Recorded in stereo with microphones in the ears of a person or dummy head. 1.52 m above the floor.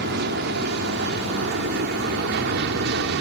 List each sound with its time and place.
0.0 s an aircraft: 60° right (ahead or behind)